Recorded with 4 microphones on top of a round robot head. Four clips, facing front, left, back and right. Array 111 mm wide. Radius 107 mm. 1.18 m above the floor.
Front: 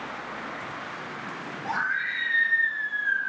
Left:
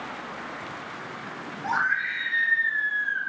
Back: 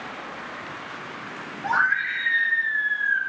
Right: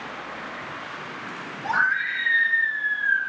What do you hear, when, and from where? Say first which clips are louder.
1.6 s a scream: right 3 dB, back 6 dB; 150° left, 5 m; by 3.2 s 135° left, 4 m